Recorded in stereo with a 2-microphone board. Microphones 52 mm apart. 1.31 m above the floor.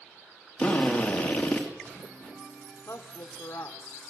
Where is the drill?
15° left (ahead or behind), 2.5 m.